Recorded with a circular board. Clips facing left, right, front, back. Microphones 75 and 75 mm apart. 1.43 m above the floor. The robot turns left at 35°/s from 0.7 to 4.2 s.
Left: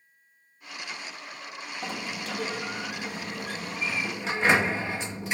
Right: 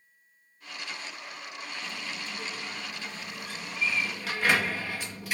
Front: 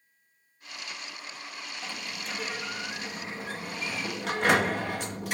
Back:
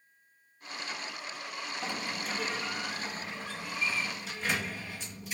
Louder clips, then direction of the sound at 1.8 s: Left 8 dB, back 3 dB; 110° left.